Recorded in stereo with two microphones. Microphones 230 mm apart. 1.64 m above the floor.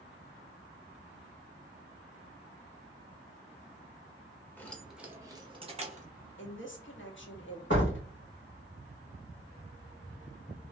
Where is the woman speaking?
55° left (ahead or behind), 0.9 m.